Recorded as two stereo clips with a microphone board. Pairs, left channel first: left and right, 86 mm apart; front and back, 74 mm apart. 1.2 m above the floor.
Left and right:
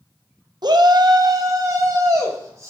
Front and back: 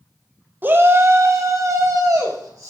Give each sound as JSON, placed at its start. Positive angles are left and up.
{"t": 0.6, "sound": "a shout", "azimuth_deg": -120, "distance_m": 0.8}